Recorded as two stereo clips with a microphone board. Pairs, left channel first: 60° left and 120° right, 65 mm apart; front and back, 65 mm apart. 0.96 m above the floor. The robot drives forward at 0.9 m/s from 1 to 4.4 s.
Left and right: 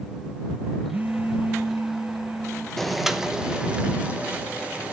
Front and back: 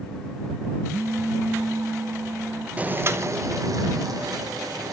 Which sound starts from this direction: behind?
A phone buzzing, at 0.9 s.